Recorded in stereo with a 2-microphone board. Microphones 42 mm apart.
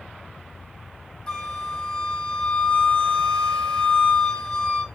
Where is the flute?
20° left (ahead or behind), 1.7 m.